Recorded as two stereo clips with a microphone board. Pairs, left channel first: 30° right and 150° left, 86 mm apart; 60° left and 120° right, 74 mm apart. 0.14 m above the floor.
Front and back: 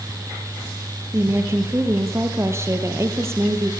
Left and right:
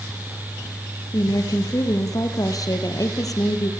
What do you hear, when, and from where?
1.1 s a woman speaking: 95° left, 3 m